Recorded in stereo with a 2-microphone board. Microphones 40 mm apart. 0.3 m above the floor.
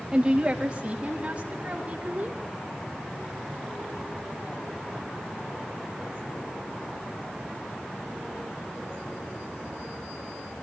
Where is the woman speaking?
20° right (ahead or behind), 1.3 m; by 2.4 s 30° right (ahead or behind), 2.5 m.